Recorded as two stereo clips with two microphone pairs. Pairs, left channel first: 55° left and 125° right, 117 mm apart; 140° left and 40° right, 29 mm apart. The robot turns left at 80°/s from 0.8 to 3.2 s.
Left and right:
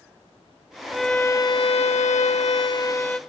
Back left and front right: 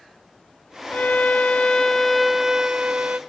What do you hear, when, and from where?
0.9 s a violin: 155° left, 0.6 m; by 3.2 s 30° right, 0.6 m